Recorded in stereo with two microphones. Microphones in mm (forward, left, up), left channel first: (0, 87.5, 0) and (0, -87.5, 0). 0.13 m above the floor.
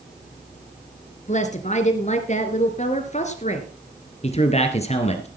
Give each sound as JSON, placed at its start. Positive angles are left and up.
{"t": 1.3, "sound": "a woman speaking", "side_deg": 40, "distance_m": 1.7}
{"t": 4.2, "sound": "a man speaking", "side_deg": 40, "distance_m": 1.8}